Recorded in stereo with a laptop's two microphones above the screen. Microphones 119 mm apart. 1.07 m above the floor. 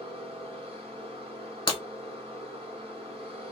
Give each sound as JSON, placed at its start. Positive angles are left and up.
{"t": 0.0, "sound": "a machine running", "side_deg": -50, "distance_m": 1.8}
{"t": 1.7, "sound": "breaking glass", "side_deg": 45, "distance_m": 1.5}